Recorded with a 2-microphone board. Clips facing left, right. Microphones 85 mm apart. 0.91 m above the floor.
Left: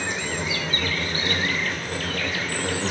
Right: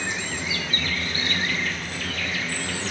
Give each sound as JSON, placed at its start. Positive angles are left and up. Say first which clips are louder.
{"t": 0.0, "sound": "an insect", "louder": "left 2 dB", "side_deg": 50, "distance_m": 1.3}